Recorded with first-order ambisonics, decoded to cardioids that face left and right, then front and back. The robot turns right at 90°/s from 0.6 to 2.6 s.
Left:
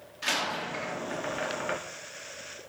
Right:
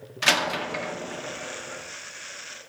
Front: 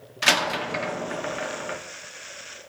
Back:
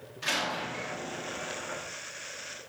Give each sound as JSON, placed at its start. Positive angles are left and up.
{"t": 0.2, "sound": "a door slam", "azimuth_deg": -40, "distance_m": 0.7}